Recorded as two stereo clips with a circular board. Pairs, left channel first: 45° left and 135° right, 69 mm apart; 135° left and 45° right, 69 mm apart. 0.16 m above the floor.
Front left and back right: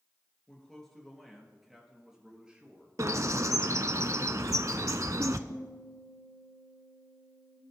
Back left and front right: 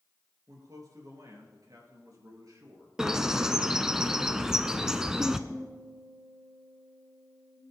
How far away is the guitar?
About 4 m.